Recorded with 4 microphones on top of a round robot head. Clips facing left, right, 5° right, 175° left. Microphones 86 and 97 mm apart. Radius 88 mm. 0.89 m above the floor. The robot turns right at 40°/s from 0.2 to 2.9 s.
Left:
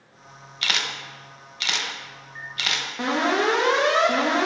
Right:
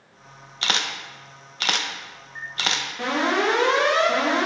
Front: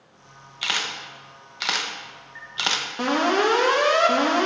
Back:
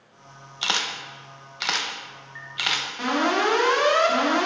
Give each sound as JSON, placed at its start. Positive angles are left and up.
{"t": 0.6, "sound": "a camera shutter", "azimuth_deg": -135, "distance_m": 0.8}
{"t": 3.0, "sound": "an alarm", "azimuth_deg": 25, "distance_m": 1.9}